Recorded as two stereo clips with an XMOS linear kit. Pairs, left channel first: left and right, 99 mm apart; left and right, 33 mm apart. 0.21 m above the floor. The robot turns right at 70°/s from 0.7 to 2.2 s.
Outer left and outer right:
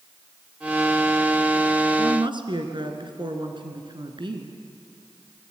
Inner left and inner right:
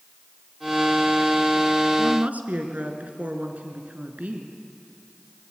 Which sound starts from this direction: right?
A woman speaking, at 2.0 s.